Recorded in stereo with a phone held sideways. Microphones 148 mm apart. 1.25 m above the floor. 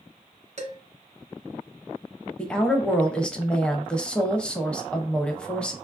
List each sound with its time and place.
0.6 s dishes clattering: 50° right (ahead or behind), 1.0 m
2.4 s a woman speaking: 5° left (ahead or behind), 0.6 m